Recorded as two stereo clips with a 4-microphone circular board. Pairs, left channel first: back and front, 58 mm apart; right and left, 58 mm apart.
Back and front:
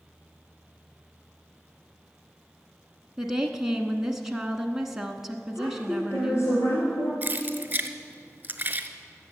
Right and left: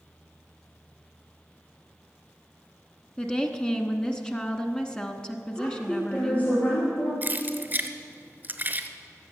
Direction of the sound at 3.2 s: 65° right.